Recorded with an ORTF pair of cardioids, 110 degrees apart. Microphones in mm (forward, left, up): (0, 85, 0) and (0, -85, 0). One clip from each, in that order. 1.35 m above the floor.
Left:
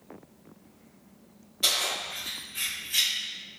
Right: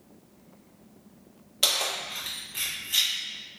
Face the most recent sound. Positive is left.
turn(degrees=-25)